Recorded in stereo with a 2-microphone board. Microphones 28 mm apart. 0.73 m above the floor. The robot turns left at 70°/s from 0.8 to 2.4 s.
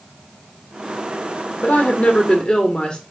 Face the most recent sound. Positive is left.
turn(degrees=40)